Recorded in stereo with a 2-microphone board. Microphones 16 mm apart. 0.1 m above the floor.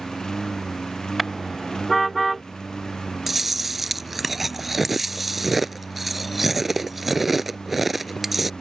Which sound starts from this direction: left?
A lawn mower, at 0.0 s.